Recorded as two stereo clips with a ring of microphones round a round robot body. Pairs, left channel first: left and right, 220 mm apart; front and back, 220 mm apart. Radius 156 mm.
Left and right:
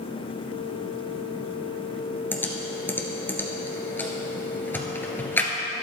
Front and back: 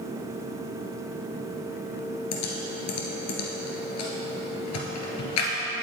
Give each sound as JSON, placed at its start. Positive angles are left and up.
{"t": 2.3, "sound": "typing on a keyboard", "azimuth_deg": 10, "distance_m": 1.9}